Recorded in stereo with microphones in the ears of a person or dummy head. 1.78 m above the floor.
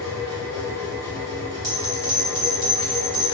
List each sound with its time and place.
0.0 s a machine running: 15° right (ahead or behind), 1.5 m
1.6 s a bell: 50° right (ahead or behind), 1.7 m